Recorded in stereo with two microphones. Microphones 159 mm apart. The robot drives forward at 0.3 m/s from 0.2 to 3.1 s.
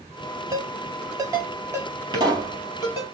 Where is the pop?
25° right (ahead or behind), 2 m.